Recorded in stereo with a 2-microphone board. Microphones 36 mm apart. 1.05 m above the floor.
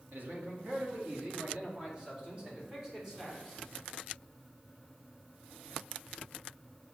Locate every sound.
0.1 s a man speaking: 70° right (ahead or behind), 2.0 m; by 3.6 s 5° right (ahead or behind), 3.5 m